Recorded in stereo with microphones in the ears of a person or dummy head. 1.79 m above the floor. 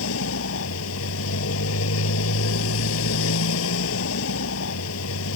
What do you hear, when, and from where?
0.0 s a motorcycle: 75° left (ahead or behind)